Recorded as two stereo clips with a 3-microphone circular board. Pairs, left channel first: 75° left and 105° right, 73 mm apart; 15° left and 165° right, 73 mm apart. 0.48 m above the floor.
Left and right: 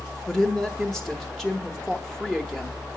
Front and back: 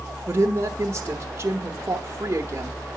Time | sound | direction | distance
0.3 | a woman speaking | 160° left | 1.0 m